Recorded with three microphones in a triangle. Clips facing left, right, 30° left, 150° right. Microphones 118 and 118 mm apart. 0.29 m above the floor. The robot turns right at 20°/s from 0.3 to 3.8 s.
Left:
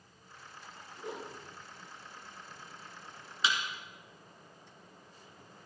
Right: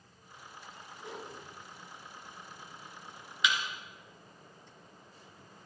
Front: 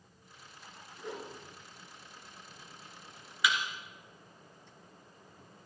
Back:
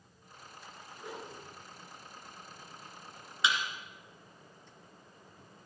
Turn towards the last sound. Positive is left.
turn(degrees=155)